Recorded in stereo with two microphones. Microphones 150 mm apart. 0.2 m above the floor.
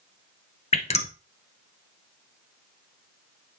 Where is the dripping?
45° left (ahead or behind), 1.3 m.